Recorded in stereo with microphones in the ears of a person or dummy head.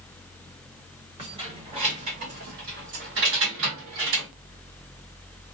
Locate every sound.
1.2 s keys jangling: 20° right (ahead or behind), 1.5 m; by 4.3 s 65° right (ahead or behind), 1.7 m